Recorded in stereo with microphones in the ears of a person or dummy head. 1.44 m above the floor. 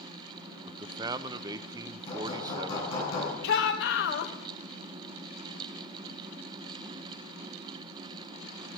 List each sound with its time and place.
0.7 s a man speaking: 20° right (ahead or behind), 0.7 m
2.1 s hammering: 30° left (ahead or behind), 9 m
3.4 s a shout: 65° left (ahead or behind), 1.8 m